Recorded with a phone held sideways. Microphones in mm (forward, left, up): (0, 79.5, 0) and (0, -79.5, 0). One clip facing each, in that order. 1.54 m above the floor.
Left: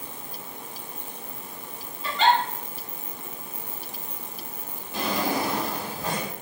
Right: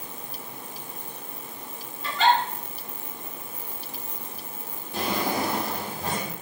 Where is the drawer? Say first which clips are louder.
Even; 45° right (ahead or behind), 1.6 m.